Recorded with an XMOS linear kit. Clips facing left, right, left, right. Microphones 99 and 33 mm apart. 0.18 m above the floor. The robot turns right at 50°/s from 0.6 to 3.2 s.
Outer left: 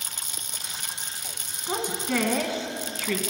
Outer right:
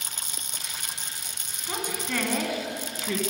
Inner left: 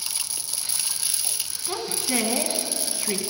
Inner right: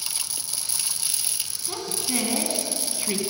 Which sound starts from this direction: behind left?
A woman speaking, at 1.7 s.